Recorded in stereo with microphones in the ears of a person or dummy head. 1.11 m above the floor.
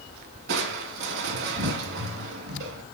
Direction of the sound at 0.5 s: 65° right (ahead or behind).